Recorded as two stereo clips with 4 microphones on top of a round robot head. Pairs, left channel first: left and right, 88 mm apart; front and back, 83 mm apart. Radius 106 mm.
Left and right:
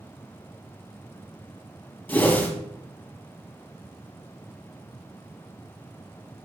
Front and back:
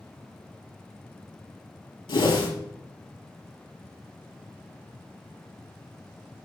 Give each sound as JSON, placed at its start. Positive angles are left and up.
{"t": 2.1, "sound": "a whoosh", "azimuth_deg": 25, "distance_m": 3.0}